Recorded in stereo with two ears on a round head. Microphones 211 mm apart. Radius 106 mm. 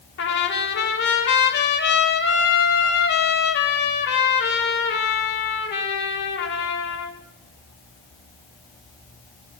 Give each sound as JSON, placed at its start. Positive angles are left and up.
{"t": 0.2, "sound": "a trumpet", "side_deg": 50, "distance_m": 2.5}